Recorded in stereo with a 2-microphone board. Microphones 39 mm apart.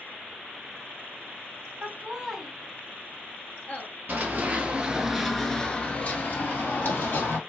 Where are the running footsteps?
45° right (ahead or behind), 1.0 m; by 7.4 s 65° left (ahead or behind), 1.4 m.